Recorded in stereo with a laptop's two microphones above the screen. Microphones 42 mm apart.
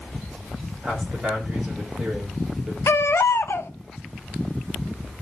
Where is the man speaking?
10° right (ahead or behind), 3 m.